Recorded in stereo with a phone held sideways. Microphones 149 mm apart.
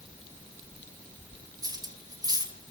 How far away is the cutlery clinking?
About 2.5 m.